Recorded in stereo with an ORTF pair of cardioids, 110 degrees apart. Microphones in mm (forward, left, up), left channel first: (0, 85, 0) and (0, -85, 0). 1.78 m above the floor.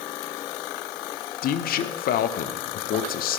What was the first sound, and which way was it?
A man speaking, 60° left.